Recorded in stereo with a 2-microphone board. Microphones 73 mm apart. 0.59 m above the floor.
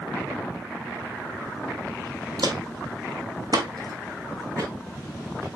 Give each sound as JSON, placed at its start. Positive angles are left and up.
{"t": 2.4, "sound": "footsteps", "side_deg": -65, "distance_m": 1.4}